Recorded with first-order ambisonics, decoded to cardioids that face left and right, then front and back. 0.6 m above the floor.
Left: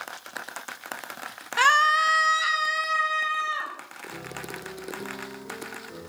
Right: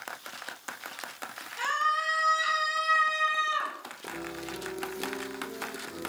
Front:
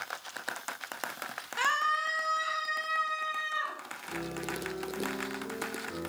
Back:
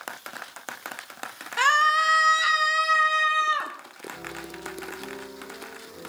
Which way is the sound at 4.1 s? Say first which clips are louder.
Even, even; straight ahead.